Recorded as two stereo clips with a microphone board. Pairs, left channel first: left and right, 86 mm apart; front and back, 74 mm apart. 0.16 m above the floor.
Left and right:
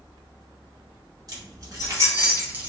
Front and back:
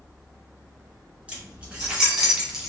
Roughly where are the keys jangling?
Right.